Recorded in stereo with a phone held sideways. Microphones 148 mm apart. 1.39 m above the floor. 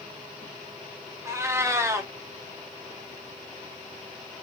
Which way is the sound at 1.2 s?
20° right (ahead or behind).